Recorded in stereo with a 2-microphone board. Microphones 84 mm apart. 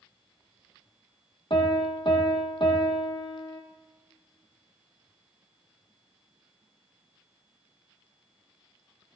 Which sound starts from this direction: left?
A piano, at 1.5 s.